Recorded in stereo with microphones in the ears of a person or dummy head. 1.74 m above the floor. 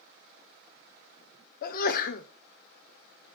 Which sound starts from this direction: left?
A sneeze, at 1.6 s.